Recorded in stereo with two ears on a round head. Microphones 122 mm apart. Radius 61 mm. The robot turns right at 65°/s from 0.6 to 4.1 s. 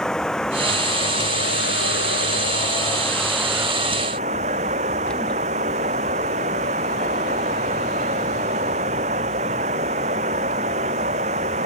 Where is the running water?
5° left; by 11.7 s 130° right.